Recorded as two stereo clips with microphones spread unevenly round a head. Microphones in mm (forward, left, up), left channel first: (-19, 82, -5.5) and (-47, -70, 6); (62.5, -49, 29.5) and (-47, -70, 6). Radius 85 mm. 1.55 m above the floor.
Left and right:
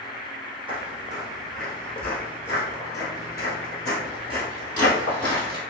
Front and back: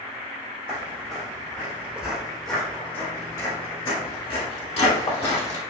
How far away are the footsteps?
About 1.7 m.